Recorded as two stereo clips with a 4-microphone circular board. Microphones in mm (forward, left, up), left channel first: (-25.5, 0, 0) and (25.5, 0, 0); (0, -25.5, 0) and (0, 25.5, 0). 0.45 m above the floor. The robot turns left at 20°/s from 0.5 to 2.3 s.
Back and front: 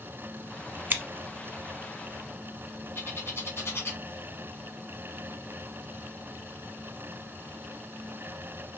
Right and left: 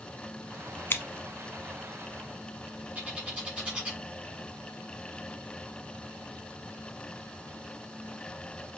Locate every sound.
0.9 s scissors: 45° right, 0.8 m
3.0 s a bird: 155° left, 2.5 m